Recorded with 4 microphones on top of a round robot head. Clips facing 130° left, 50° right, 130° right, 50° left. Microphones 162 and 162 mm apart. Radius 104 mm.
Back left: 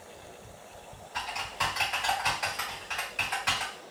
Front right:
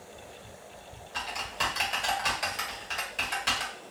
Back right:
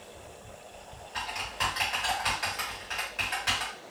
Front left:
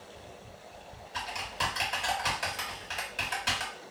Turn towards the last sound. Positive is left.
turn(degrees=5)